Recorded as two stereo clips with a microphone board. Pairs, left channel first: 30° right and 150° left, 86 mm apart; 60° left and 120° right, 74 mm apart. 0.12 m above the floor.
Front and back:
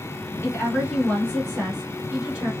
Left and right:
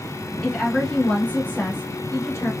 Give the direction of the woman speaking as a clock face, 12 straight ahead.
1 o'clock.